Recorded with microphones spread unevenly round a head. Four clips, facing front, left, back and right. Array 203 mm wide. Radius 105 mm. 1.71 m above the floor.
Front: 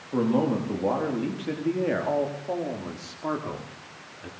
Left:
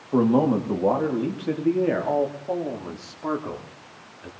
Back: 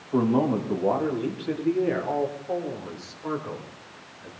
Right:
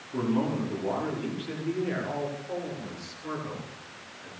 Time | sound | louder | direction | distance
0.1 | a man speaking | left 8 dB, back 1 dB | 90° left | 4 m